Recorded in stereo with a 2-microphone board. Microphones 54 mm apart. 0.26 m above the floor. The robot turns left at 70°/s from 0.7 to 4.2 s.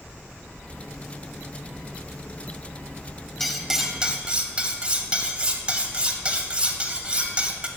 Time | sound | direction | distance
3.4 | cutlery clinking | 10° left | 0.5 m